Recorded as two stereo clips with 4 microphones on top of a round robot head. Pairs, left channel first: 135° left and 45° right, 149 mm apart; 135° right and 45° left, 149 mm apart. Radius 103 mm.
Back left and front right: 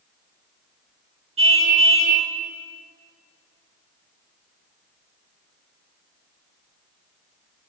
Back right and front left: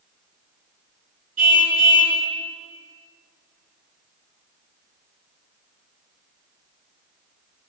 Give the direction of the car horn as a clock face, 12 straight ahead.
12 o'clock.